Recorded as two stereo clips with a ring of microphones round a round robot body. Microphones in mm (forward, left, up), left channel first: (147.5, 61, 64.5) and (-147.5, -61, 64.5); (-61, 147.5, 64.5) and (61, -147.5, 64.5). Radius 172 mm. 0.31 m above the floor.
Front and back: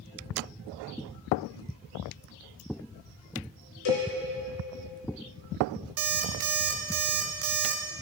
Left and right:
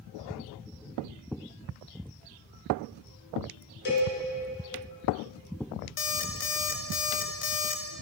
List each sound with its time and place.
3.9 s a cowbell: 55° left, 3 m
6.0 s an alarm clock: 160° left, 0.9 m